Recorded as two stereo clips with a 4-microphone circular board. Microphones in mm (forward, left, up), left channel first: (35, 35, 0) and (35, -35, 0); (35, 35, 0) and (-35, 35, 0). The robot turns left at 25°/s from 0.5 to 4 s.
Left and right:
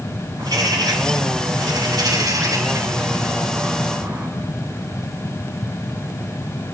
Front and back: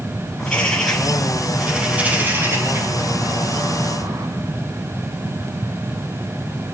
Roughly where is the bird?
Right.